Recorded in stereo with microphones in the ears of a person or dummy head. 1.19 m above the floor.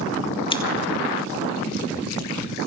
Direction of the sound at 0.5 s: 20° left (ahead or behind).